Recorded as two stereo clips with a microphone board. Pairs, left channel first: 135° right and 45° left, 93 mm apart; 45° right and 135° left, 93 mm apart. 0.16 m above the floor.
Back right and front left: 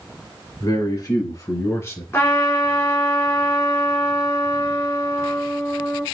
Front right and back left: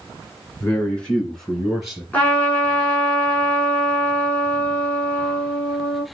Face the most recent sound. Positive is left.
turn(degrees=-105)